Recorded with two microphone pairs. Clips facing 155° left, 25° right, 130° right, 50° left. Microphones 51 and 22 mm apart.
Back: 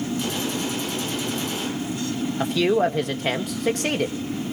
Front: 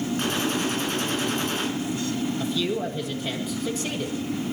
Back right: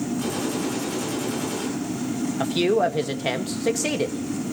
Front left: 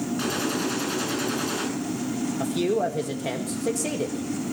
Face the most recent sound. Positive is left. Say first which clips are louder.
# back 6 dB, back right 4 dB
turn(degrees=175)